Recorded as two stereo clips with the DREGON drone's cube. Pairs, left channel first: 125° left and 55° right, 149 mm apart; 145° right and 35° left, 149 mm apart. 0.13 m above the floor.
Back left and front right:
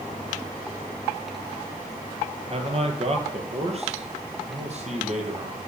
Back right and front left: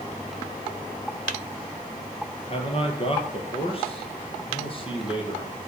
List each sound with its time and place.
2.5 s a man speaking: 100° right, 3.5 m; by 5.6 s 95° right, 5.5 m